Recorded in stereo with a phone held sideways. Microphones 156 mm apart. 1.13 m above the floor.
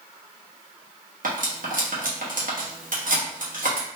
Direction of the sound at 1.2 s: 70° right (ahead or behind).